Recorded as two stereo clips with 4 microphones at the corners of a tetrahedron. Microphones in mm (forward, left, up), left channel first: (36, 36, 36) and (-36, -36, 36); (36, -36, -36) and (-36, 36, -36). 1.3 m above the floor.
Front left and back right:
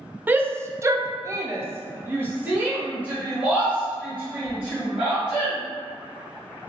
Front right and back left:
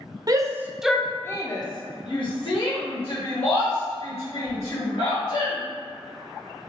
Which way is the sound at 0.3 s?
160° left.